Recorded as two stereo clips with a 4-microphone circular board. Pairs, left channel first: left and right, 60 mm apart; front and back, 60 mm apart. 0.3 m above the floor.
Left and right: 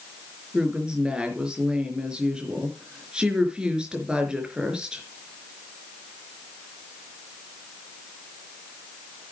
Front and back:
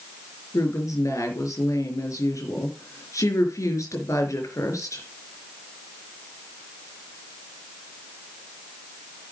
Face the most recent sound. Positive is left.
turn(degrees=-15)